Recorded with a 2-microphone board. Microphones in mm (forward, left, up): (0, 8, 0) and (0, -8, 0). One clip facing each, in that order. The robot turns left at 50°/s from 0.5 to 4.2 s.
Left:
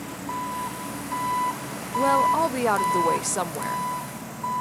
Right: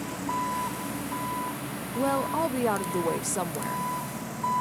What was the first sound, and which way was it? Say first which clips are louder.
An engine running: right 1 dB; 175° right.